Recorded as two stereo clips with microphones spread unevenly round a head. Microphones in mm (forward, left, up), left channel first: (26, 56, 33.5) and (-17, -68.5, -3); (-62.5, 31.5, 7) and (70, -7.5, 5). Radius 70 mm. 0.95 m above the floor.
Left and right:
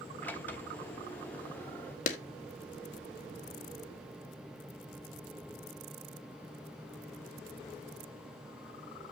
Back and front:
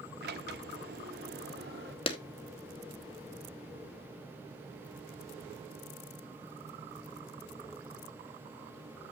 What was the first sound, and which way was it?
A sliding door, 5° right.